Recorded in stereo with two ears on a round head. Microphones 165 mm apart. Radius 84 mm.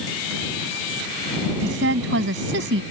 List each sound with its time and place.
1.6 s a woman speaking: 65° right (ahead or behind)